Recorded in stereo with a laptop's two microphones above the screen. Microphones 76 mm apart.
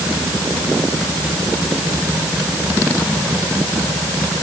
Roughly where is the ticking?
I don't hear ticking.